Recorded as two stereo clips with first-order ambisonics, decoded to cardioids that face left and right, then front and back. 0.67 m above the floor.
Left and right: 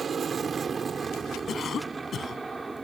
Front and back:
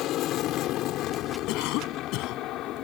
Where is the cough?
25° left.